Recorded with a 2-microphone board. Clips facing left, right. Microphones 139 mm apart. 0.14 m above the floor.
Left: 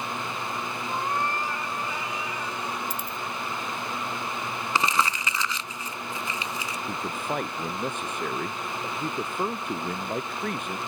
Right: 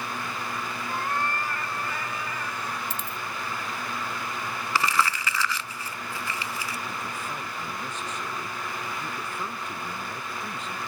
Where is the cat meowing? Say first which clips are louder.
Left 1 dB; 15° left (ahead or behind); by 2.8 s 10° left (ahead or behind).